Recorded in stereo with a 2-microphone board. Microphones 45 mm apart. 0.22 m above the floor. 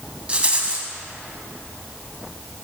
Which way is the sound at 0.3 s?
25° right (ahead or behind).